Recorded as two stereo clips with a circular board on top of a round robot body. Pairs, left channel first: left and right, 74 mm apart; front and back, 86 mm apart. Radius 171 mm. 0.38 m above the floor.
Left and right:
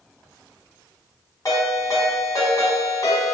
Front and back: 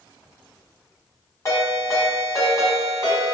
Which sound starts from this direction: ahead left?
A ringtone, at 1.4 s.